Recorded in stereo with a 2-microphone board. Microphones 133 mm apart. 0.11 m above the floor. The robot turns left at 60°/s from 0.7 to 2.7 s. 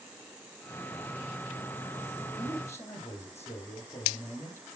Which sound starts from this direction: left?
A man speaking, at 2.4 s.